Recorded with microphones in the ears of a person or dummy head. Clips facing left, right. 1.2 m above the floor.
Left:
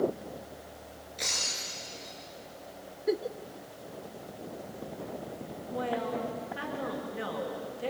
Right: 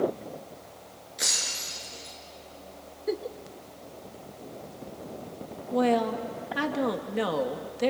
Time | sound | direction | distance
1.2 | breaking glass | 5° right (ahead or behind) | 4.5 m
3.1 | a giggle | 5° left (ahead or behind) | 0.6 m
5.7 | a woman speaking | 75° right (ahead or behind) | 2 m